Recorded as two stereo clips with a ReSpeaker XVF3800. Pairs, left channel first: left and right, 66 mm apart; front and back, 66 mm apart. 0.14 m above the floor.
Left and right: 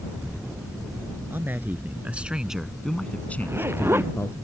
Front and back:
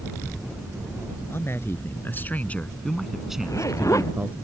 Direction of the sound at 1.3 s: 40° right.